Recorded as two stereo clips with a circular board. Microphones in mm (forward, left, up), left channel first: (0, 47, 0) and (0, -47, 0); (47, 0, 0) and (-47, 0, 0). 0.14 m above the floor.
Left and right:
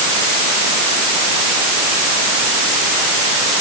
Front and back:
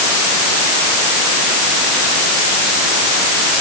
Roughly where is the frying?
No frying in this recording.